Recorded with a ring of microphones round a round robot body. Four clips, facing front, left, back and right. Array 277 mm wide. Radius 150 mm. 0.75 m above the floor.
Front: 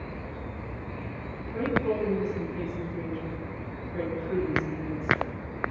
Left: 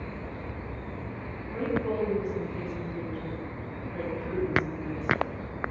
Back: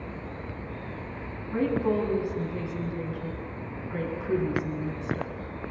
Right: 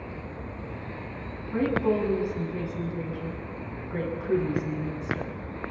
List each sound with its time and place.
1.5 s a woman speaking: 135° right, 7.5 m